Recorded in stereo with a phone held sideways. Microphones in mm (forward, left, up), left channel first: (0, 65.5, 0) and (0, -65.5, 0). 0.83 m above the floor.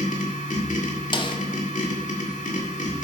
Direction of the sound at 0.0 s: 80° left.